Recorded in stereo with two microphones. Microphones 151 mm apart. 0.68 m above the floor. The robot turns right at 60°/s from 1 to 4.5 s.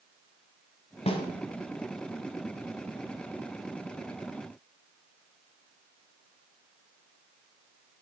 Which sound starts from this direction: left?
A snare drum, at 1.1 s.